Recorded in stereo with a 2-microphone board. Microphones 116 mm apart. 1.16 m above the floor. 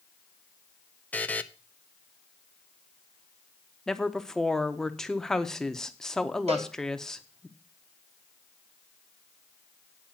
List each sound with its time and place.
1.1 s a buzzer: 15° left (ahead or behind), 0.6 m
3.9 s a woman speaking: 5° left (ahead or behind), 0.9 m
6.5 s a cowbell: 75° right (ahead or behind), 3.5 m